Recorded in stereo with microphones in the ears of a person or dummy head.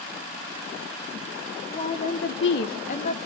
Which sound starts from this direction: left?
A woman speaking, at 1.7 s.